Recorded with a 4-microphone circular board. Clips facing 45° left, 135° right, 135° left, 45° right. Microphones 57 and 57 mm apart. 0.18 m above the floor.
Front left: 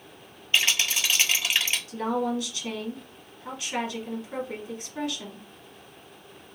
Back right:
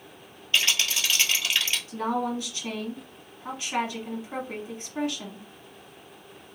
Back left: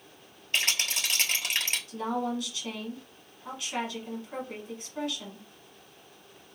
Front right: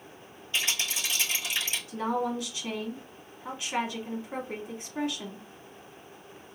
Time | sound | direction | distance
0.5 | a rattle | 110° left | 1.0 m
1.9 | a woman speaking | 95° right | 1.2 m